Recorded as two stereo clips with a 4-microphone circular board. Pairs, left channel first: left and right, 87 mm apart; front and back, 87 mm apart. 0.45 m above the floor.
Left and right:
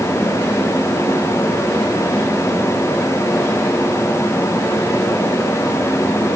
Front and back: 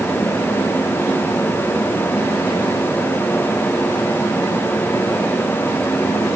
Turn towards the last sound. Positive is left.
No sound to turn to.